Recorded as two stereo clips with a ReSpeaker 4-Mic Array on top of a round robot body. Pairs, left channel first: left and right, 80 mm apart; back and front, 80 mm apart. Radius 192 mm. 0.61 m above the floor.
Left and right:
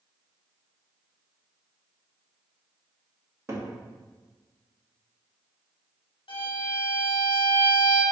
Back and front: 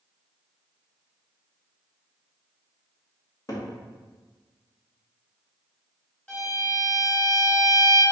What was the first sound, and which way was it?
A cupboard door, 140° right.